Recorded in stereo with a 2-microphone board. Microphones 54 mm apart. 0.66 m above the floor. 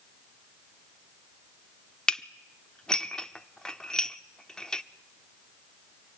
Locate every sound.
2.1 s dishes clattering: 15° left (ahead or behind), 0.7 m